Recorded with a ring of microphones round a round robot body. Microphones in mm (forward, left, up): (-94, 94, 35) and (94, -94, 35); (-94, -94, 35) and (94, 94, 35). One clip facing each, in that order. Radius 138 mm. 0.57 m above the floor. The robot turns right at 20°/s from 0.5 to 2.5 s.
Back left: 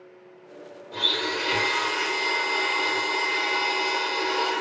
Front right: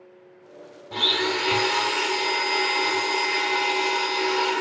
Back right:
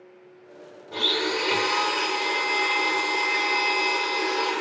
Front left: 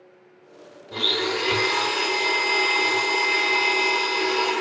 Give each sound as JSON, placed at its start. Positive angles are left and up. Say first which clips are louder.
{"t": 0.9, "sound": "a blender", "louder": "front right 4 dB, front left 1 dB", "azimuth_deg": -30, "distance_m": 0.9}